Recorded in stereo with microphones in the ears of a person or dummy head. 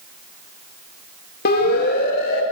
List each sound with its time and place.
1.4 s a siren: 55° left (ahead or behind), 4 m